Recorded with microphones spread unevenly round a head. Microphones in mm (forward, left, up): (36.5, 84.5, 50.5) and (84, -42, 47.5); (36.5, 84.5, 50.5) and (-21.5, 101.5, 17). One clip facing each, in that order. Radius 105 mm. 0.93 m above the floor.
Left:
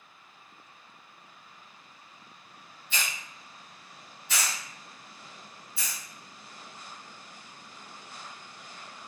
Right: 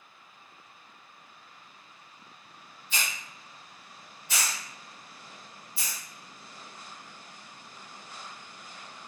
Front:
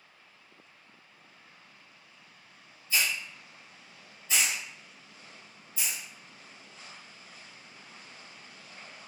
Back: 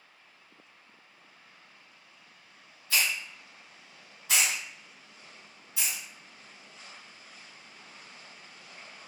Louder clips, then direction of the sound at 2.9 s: Even, back 1 dB; 155° left.